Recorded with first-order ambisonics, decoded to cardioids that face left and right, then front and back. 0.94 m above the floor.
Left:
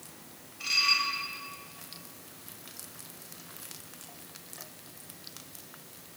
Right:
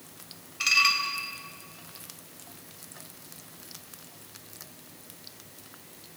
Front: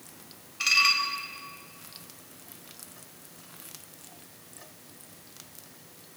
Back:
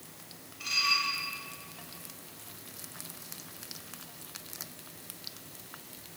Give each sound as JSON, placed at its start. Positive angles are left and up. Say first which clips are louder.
{"t": 0.6, "sound": "dishes clattering", "louder": "right 3 dB, front 6 dB", "azimuth_deg": -45, "distance_m": 3.5}